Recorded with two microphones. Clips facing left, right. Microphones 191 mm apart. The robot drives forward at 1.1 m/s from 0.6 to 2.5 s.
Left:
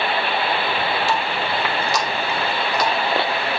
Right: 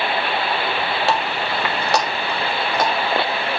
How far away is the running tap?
About 1.6 m.